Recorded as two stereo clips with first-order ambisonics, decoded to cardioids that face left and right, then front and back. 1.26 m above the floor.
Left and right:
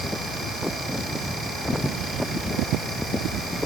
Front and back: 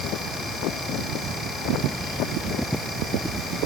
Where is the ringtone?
No ringtone in this recording.